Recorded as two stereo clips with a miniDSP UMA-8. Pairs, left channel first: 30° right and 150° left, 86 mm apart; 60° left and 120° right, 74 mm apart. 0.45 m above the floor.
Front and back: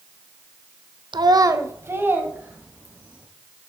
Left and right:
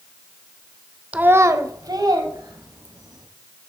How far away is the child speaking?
About 0.7 m.